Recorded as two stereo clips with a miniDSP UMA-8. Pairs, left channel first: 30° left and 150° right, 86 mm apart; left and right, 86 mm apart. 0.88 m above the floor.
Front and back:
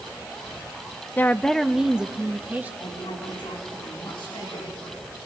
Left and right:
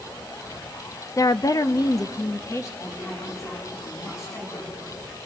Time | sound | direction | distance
1.2 | a woman speaking | 80° left | 0.6 m
2.8 | a woman speaking | 35° left | 6.5 m